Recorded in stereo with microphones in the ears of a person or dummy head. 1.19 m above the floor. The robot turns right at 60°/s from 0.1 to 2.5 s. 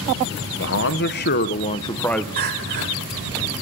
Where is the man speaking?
80° left, 0.7 m; by 2.3 s straight behind, 0.7 m.